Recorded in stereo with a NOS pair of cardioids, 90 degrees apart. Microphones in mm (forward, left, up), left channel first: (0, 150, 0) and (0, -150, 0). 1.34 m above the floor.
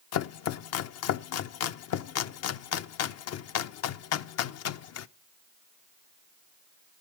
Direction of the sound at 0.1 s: 55° left.